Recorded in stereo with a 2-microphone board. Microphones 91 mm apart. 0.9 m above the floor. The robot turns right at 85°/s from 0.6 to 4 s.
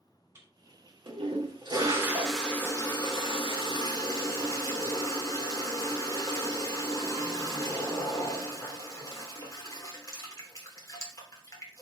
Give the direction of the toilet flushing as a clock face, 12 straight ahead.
5 o'clock.